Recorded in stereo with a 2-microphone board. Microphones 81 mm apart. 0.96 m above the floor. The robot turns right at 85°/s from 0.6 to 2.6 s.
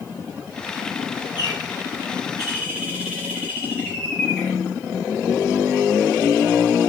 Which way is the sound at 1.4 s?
55° left.